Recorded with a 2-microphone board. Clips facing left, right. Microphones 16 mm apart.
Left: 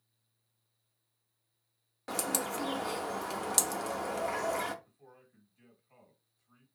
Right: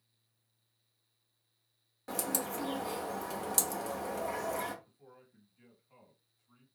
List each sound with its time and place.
2.1 s a bird: 25° left (ahead or behind), 0.5 m
4.8 s a man speaking: 10° left (ahead or behind), 2.5 m